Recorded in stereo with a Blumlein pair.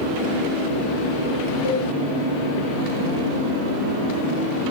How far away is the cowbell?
About 3.5 m.